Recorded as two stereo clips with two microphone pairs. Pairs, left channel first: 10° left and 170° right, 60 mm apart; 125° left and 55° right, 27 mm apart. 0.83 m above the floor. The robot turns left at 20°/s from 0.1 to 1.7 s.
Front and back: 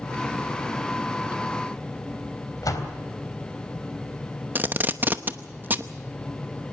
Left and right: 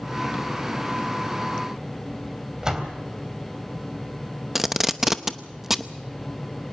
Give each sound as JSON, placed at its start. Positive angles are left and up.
{"t": 2.6, "sound": "a door slam", "azimuth_deg": 10, "distance_m": 3.5}
{"t": 4.5, "sound": "tape being pulled", "azimuth_deg": -130, "distance_m": 0.9}